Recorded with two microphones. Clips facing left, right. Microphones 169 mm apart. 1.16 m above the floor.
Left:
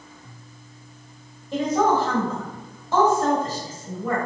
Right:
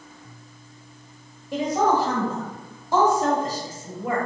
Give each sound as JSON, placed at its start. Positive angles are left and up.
{"t": 1.5, "sound": "a woman speaking", "side_deg": -10, "distance_m": 0.9}